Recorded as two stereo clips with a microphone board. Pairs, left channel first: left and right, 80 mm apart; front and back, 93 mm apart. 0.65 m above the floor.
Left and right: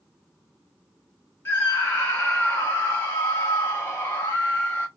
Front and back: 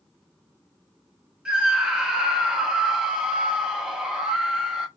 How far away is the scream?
About 0.6 m.